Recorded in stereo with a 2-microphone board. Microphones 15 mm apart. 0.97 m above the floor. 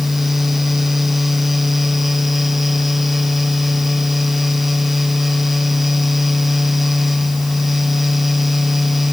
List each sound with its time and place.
Only background noise.